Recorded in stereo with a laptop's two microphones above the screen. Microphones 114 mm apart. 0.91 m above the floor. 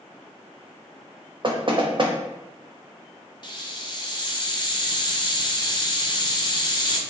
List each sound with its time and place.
1.4 s knocking: 45° right (ahead or behind), 0.5 m
3.4 s a hiss: 40° left (ahead or behind), 0.6 m